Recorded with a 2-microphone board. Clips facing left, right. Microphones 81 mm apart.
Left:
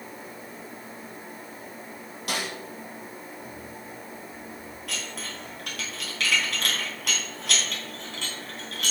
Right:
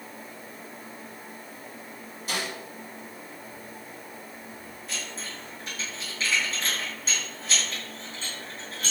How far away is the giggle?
I don't hear a giggle.